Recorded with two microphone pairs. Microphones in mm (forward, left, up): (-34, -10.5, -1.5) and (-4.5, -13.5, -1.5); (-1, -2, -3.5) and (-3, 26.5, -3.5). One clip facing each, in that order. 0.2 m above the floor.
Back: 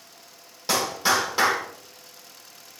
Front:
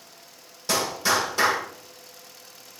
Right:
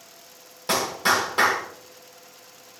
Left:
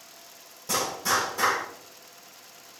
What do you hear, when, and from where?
0.7 s a clap: 120° right, 6 m